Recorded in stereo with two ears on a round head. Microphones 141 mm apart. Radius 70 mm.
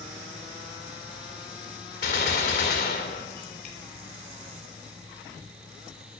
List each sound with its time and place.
2.0 s a gunshot: 75° left (ahead or behind), 4 m